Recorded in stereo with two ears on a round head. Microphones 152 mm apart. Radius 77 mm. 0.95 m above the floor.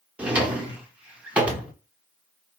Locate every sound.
0.2 s a drawer: 10° right (ahead or behind), 0.7 m